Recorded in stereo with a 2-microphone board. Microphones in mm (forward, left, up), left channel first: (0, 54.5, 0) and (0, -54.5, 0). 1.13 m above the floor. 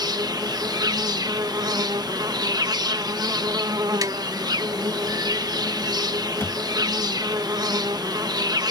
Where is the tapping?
35° right (ahead or behind).